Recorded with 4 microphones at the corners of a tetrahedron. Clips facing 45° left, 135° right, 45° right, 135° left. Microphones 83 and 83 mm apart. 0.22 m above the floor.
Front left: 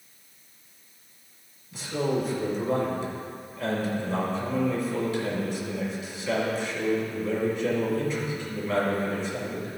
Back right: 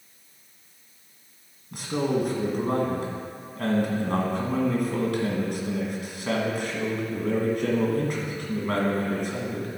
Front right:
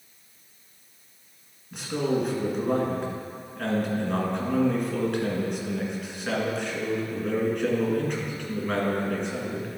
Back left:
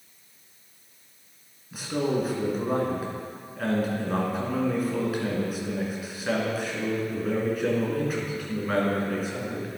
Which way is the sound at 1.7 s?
140° right.